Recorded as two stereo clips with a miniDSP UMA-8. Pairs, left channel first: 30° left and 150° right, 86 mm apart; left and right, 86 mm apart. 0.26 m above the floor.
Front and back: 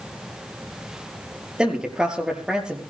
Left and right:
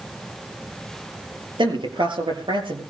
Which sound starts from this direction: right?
A man speaking, at 1.6 s.